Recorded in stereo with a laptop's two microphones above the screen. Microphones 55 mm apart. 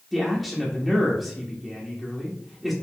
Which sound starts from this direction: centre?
A man speaking, at 0.1 s.